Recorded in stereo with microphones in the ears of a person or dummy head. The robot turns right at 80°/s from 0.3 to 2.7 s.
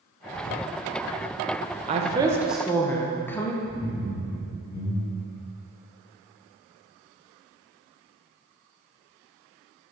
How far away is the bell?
I don't hear a bell.